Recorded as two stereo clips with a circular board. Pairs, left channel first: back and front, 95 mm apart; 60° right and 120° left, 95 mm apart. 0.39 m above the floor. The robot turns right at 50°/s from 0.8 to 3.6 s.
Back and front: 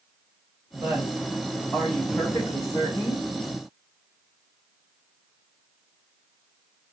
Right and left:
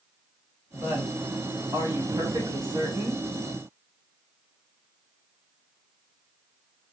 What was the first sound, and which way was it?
A woman speaking, 55° left.